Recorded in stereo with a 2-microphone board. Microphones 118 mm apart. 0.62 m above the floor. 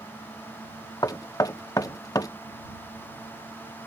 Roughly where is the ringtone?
I don't hear a ringtone.